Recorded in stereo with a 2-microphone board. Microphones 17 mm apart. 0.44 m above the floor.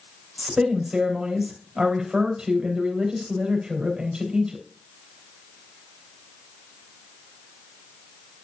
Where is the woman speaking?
65° right (ahead or behind), 2.5 m.